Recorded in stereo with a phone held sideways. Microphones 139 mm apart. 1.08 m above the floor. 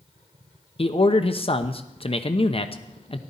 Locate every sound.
0.8 s a man speaking: 45° left (ahead or behind), 0.9 m